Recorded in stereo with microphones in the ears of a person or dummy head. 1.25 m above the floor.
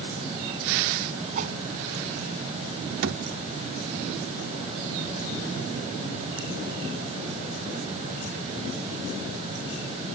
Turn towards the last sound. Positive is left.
turn(degrees=-65)  # may be behind; listen again after turning